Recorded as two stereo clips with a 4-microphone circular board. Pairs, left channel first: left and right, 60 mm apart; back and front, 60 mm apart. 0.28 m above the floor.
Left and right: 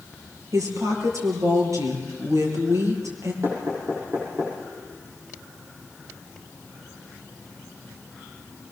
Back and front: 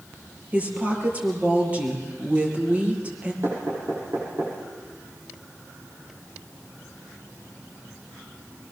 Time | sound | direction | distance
0.5 | a woman speaking | 65° right | 6 m
3.4 | knocking | 45° right | 8.5 m